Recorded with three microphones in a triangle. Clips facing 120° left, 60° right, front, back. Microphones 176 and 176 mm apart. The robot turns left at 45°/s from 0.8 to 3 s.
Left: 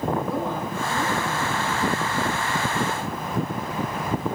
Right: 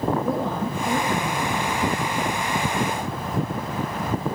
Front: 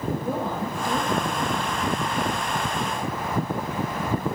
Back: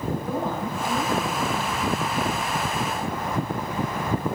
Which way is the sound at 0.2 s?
50° right.